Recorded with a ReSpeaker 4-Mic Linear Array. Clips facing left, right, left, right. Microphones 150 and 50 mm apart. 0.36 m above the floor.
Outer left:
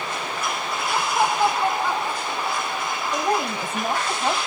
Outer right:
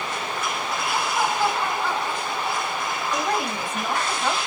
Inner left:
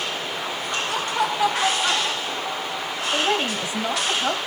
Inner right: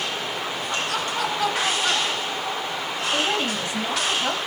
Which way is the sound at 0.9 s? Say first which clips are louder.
Outer left 3 dB, inner left 4 dB; 30° left (ahead or behind).